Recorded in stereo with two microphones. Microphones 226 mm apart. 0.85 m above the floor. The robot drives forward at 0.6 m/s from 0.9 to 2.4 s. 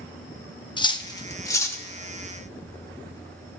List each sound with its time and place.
0.8 s cutlery clinking: 20° left (ahead or behind), 0.7 m; by 1.8 s 10° left (ahead or behind), 1.3 m